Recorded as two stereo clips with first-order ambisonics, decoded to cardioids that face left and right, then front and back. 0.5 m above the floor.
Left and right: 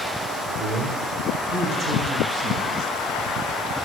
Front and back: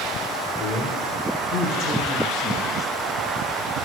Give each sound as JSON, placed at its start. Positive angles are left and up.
{"t": 0.6, "sound": "a man speaking", "azimuth_deg": -50, "distance_m": 1.5}